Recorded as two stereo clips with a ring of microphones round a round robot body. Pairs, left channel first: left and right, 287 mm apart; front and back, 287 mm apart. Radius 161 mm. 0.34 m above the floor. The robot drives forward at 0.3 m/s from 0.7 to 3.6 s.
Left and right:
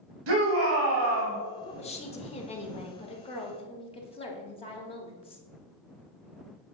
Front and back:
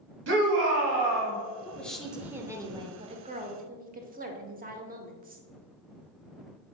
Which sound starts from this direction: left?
A woman speaking, at 1.6 s.